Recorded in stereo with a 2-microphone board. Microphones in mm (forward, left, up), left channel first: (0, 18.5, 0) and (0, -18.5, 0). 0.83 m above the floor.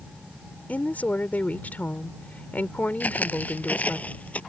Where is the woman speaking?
45° left (ahead or behind).